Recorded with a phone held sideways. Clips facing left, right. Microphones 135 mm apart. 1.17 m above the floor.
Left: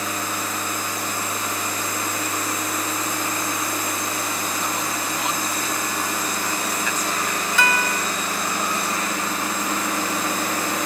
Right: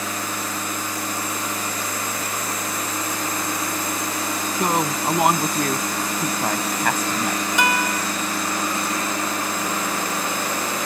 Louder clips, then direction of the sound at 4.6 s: Right 5 dB; 60° right (ahead or behind).